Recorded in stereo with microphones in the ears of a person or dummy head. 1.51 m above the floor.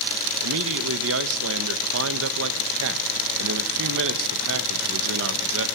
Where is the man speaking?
75° right (ahead or behind), 1.3 m.